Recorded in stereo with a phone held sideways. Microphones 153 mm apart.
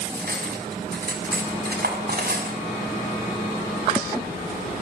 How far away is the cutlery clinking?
About 6 m.